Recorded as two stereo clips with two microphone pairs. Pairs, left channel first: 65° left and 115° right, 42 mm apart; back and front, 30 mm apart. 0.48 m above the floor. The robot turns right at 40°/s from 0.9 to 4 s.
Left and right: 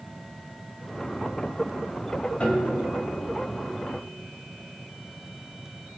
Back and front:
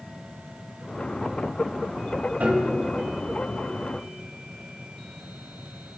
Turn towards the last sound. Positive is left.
turn(degrees=70)